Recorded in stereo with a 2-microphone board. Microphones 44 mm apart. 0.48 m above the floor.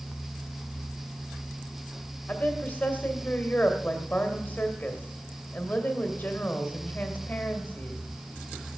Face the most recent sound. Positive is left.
turn(degrees=40)  # may be behind; listen again after turning